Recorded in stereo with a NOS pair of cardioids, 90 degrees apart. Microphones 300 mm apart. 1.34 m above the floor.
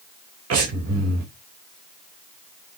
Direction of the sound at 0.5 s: 55° right.